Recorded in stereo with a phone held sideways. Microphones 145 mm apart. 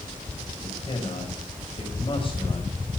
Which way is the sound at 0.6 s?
35° left (ahead or behind).